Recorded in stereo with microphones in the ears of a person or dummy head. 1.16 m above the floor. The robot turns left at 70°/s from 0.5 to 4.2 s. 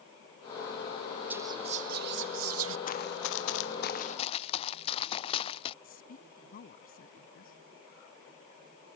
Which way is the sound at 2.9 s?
45° left (ahead or behind).